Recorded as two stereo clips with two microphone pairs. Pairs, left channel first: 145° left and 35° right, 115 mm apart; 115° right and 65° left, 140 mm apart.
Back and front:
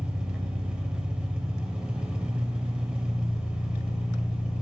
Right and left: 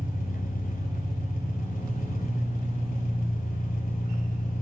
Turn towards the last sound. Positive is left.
turn(degrees=-115)